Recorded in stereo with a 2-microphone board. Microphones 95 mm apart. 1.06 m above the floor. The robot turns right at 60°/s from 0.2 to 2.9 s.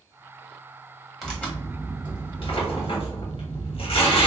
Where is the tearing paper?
Straight ahead, 1.3 m; by 4.3 s 100° left, 1.3 m.